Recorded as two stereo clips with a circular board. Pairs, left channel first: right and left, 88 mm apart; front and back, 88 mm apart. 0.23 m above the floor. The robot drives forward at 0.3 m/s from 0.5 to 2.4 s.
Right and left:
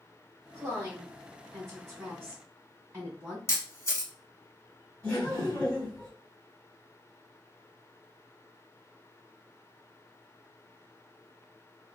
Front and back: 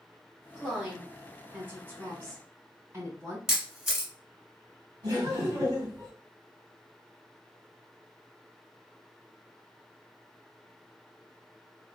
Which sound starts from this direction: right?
A camera shutter, at 3.5 s.